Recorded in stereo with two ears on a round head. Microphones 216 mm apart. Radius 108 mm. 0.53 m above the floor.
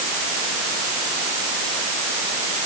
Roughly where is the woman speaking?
No woman speaking in this recording.